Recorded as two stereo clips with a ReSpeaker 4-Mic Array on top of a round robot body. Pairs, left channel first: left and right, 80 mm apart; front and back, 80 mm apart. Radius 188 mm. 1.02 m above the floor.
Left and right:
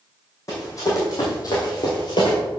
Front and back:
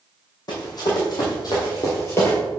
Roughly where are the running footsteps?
Ahead left.